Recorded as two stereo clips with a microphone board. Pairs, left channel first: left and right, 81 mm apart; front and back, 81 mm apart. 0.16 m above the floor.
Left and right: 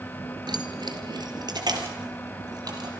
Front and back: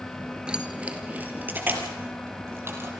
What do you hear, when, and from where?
0.5 s keys jangling: 105° right, 2.0 m; by 2.9 s 125° right, 3.5 m